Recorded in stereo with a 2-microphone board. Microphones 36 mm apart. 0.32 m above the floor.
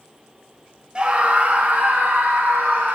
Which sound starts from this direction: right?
A scream, at 0.9 s.